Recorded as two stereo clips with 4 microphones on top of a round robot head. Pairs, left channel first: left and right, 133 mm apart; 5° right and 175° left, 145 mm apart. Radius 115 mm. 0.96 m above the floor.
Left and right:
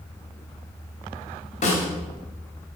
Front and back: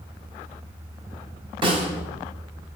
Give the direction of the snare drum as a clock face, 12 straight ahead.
8 o'clock.